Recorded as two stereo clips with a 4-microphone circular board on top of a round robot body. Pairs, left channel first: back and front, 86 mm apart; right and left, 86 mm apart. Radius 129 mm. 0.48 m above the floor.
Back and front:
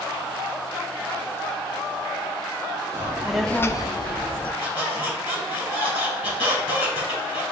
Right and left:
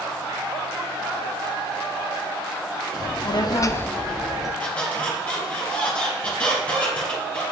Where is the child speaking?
60° right, 1.2 m; by 4.5 s 175° left, 1.5 m.